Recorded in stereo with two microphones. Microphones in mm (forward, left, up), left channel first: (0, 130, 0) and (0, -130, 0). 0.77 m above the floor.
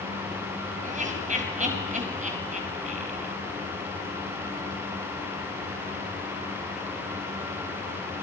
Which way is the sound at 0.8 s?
30° right (ahead or behind).